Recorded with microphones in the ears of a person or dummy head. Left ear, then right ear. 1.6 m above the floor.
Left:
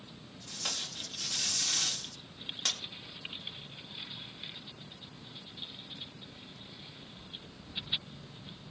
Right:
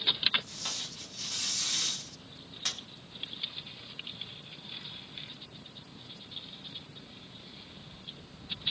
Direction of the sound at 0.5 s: 20° left (ahead or behind).